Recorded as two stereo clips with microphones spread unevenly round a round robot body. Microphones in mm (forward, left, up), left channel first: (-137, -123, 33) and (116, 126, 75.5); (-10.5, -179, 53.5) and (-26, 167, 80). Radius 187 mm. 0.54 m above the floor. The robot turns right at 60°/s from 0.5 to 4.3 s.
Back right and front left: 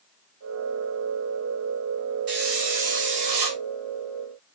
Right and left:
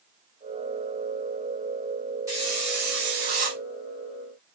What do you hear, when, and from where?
2.3 s a hiss: 10° left, 5 m; by 3.6 s 90° left, 5 m